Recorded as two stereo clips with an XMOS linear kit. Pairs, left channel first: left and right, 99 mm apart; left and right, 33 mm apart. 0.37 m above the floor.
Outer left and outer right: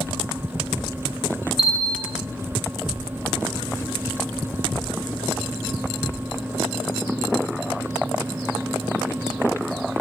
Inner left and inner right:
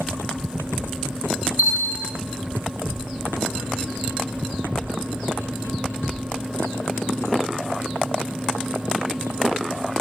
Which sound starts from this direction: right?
A bell, at 1.6 s.